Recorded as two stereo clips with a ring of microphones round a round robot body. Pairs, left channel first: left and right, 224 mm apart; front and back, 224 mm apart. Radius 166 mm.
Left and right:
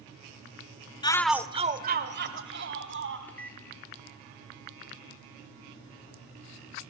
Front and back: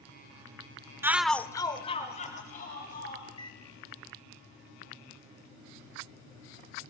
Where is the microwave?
20° left, 1.2 m.